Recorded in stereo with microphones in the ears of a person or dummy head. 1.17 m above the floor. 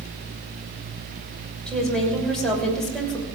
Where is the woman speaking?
5° left (ahead or behind), 6 m.